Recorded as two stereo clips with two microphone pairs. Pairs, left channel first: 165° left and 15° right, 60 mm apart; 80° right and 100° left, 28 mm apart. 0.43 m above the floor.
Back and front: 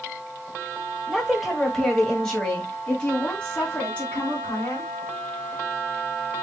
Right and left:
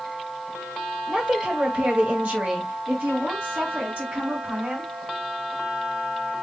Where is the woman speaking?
70° left, 1.6 m; by 4.9 s 105° left, 3.5 m.